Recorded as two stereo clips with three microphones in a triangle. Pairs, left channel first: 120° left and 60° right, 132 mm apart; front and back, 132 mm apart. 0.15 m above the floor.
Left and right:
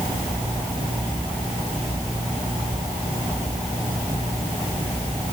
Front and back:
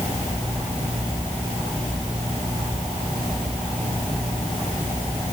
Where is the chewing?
No chewing in this recording.